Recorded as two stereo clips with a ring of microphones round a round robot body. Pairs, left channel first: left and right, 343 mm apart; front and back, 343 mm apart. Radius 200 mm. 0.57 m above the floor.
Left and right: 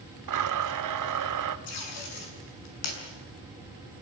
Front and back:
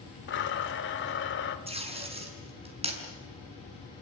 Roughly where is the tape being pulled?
Left.